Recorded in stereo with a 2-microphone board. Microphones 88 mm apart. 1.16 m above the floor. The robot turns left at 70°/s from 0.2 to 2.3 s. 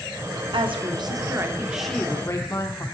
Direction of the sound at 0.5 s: 85° right.